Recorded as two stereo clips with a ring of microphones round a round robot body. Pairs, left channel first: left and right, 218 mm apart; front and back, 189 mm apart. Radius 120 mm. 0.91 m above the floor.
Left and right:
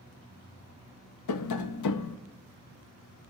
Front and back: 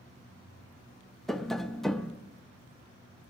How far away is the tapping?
About 0.6 m.